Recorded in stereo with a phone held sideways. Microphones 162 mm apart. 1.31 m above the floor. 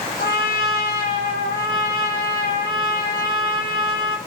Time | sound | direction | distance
0.2 | a trumpet | 75° left (ahead or behind) | 0.8 m